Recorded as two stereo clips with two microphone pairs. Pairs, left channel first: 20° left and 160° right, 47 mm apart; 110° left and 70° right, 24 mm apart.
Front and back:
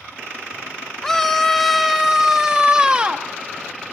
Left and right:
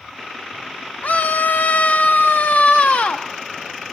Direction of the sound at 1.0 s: 100° left.